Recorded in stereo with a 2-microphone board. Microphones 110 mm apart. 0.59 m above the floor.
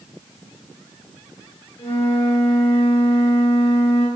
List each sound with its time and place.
1.8 s a flute: 65° left (ahead or behind), 3.5 m